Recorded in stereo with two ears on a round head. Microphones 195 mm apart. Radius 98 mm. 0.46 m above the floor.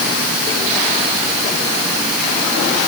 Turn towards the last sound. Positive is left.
No sound to turn to.